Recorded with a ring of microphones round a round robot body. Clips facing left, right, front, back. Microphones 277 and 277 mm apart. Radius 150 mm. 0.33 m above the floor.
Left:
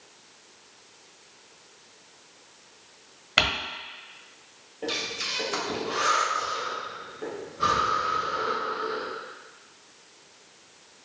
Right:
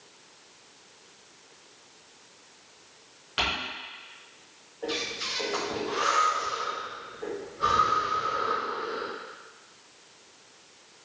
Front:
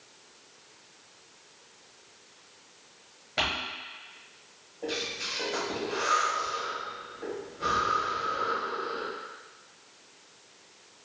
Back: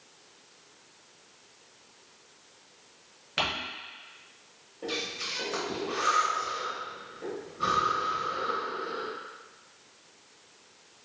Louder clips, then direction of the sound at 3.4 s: Left 4 dB, even; 95° left.